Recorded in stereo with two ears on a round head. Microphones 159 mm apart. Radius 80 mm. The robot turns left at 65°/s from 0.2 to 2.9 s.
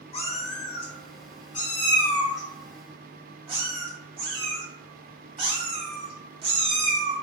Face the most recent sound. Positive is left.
turn(degrees=-30)  # may be behind; listen again after turning